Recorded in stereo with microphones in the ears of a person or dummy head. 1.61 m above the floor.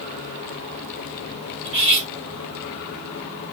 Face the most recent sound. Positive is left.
turn(degrees=-30)  # may be behind; listen again after turning